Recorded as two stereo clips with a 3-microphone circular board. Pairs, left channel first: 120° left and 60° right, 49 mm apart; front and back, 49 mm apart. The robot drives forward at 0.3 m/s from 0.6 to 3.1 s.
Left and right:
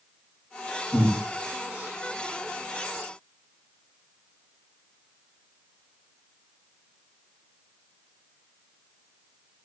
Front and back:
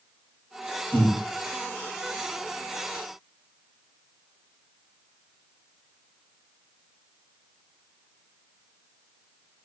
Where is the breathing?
55° left, 8.5 m.